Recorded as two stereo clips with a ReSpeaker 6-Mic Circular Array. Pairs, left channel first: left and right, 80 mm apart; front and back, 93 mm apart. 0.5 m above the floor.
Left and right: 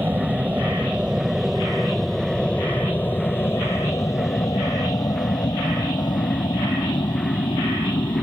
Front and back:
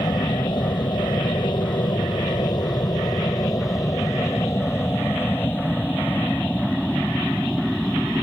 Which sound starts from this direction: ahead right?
An aircraft, at 0.0 s.